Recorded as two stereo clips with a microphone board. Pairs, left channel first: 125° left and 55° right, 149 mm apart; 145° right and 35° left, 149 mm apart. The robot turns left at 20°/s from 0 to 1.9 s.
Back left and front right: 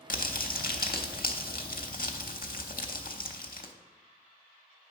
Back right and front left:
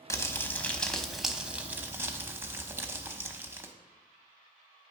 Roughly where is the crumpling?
Behind left.